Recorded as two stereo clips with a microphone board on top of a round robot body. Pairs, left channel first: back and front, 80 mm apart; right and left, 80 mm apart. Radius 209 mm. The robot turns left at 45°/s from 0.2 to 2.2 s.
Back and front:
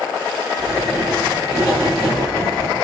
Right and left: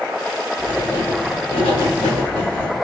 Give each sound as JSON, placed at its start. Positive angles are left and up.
{"t": 0.6, "sound": "writing", "azimuth_deg": -40, "distance_m": 1.1}